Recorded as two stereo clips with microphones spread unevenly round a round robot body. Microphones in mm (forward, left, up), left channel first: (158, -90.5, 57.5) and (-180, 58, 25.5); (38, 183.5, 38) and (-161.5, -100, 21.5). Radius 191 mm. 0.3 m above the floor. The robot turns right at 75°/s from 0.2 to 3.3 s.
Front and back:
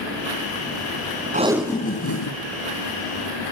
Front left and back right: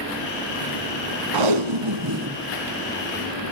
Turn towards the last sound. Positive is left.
turn(degrees=10)